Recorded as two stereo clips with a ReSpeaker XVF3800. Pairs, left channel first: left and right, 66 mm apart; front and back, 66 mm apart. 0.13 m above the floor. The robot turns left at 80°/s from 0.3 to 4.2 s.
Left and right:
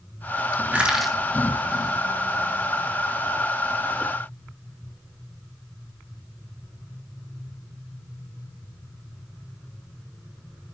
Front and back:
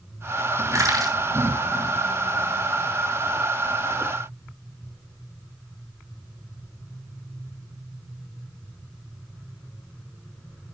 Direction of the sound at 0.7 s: 150° right.